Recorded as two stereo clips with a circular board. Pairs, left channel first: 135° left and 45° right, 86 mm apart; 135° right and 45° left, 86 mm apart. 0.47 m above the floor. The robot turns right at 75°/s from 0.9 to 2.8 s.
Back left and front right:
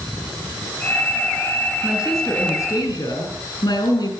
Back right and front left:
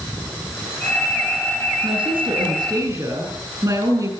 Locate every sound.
1.8 s a woman speaking: 20° left, 6.5 m; by 4.1 s 90° left, 6.5 m